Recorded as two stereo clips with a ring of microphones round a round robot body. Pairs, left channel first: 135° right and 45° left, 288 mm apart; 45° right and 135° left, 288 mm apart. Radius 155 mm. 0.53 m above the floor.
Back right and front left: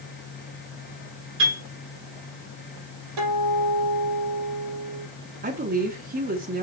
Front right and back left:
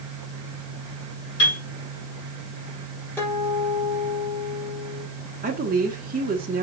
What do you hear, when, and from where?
1.4 s a piano: 5° right, 5 m
3.2 s a guitar: 40° left, 4.5 m
5.4 s a woman speaking: 90° left, 1.6 m